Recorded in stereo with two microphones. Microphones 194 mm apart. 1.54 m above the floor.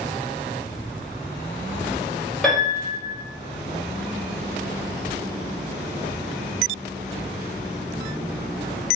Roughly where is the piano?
Centre.